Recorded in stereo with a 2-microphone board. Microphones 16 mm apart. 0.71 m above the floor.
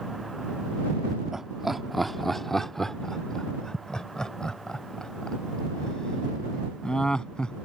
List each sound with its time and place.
1.3 s laughter: 25° right (ahead or behind); by 7.5 s 60° left (ahead or behind)